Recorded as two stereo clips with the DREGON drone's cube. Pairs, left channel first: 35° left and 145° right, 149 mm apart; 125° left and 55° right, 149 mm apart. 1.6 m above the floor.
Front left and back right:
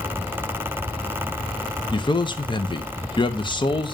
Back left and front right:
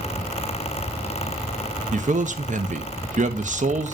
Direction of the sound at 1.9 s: 25° right.